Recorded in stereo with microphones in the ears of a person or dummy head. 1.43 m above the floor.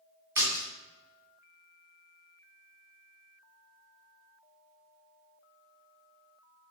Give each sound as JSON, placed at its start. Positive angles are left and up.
{"t": 0.3, "sound": "a splash", "side_deg": -10, "distance_m": 1.8}